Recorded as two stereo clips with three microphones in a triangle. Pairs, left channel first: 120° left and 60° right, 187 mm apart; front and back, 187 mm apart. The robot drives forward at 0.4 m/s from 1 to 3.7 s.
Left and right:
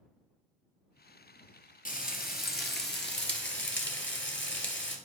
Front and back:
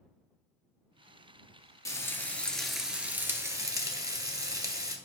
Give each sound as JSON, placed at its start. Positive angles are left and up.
{"t": 1.9, "sound": "frying", "azimuth_deg": 75, "distance_m": 1.4}